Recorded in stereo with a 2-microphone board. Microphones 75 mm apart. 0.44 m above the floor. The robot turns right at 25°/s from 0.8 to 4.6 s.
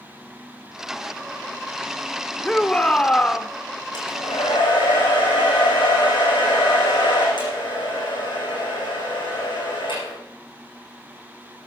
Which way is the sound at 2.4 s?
15° left (ahead or behind).